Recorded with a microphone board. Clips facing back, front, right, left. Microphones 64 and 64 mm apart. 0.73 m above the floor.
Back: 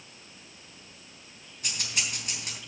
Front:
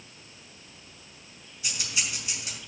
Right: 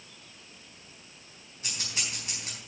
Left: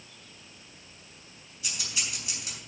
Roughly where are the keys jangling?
Behind right.